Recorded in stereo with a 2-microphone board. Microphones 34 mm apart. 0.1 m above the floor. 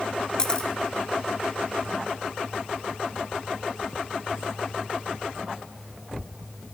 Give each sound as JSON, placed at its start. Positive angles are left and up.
{"t": 0.4, "sound": "a camera shutter", "side_deg": 25, "distance_m": 0.9}